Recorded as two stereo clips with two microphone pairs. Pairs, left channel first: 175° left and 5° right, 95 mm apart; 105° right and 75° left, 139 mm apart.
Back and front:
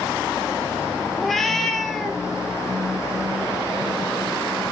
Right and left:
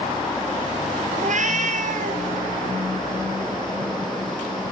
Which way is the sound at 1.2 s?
85° left.